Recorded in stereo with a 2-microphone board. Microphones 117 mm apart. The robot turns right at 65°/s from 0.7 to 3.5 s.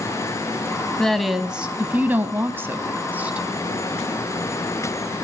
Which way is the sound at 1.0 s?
5° left (ahead or behind).